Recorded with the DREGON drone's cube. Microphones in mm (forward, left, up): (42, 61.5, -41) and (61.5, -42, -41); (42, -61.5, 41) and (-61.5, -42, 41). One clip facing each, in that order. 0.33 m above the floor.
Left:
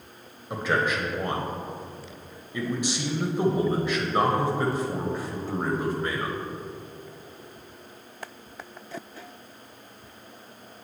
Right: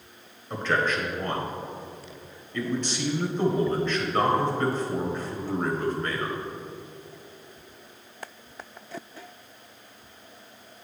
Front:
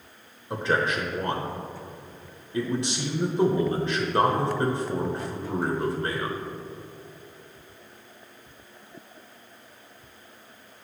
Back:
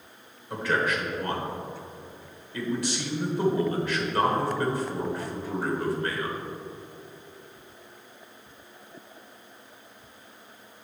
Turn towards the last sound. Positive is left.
turn(degrees=30)